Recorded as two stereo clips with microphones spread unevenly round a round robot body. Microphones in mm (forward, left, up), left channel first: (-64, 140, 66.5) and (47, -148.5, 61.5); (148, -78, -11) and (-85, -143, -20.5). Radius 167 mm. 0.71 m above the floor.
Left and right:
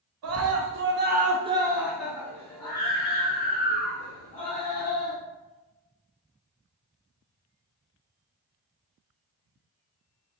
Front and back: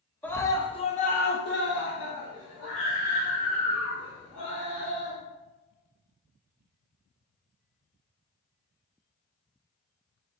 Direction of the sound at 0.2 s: 70° right.